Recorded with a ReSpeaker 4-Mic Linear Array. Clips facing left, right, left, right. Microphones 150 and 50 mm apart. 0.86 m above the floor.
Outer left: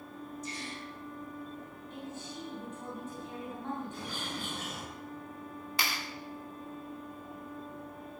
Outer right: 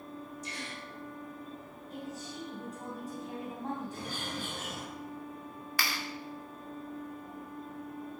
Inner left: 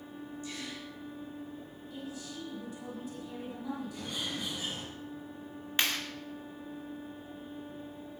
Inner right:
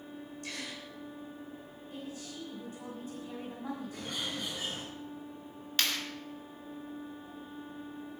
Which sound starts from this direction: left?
A clap, at 5.8 s.